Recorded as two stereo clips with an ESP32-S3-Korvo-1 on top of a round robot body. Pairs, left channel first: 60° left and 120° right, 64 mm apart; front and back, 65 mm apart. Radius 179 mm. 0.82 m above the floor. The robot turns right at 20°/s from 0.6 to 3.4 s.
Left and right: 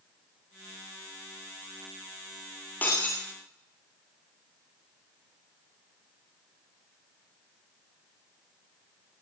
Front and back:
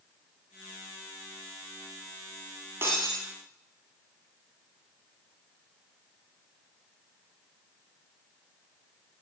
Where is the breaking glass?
125° left, 1.3 m; by 3.2 s 130° left, 1.3 m.